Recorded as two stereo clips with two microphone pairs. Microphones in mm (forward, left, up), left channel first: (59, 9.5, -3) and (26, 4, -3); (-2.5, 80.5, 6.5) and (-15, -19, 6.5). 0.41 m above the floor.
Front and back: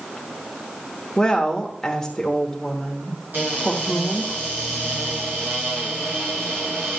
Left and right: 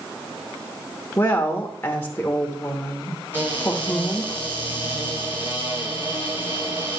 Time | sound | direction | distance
1.2 | a woman speaking | 65° left | 0.9 m
3.3 | a cupboard door | 165° right | 5.5 m